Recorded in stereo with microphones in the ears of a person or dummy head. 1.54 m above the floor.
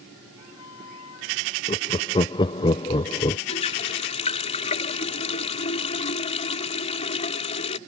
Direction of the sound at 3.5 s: 25° left (ahead or behind).